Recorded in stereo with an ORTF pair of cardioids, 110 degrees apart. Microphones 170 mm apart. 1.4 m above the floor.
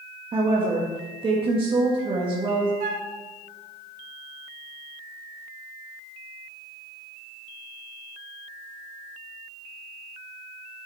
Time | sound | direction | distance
0.3 | a woman speaking | 30° right | 1.9 m
2.8 | a flute | 55° right | 1.5 m